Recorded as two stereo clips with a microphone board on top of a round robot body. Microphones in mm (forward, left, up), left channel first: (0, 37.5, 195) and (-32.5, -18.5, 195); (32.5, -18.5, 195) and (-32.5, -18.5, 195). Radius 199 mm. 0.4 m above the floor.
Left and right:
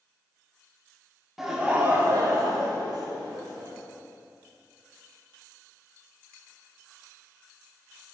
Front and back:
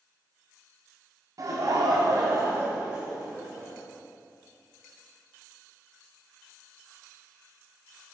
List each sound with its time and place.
1.4 s laughter: 155° left, 1.2 m; by 3.7 s 105° right, 2 m